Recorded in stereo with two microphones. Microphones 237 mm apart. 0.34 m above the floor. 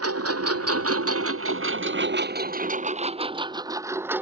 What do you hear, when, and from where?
0.0 s a lawn mower: 85° right; by 4.2 s 5° right (ahead or behind)